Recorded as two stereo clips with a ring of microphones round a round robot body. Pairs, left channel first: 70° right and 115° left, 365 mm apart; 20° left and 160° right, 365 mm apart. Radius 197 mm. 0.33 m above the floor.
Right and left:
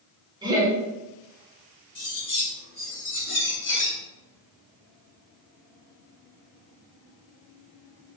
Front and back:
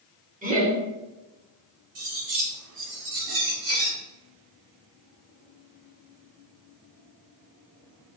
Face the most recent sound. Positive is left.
turn(degrees=-125)